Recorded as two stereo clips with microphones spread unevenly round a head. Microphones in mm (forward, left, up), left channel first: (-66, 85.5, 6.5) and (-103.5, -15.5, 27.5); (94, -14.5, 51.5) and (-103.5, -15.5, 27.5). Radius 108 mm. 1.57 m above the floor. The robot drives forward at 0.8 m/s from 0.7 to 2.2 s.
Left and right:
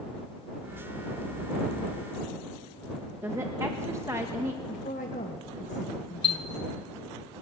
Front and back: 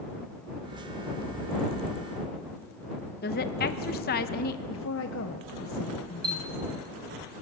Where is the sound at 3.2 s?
40° right, 1.2 m.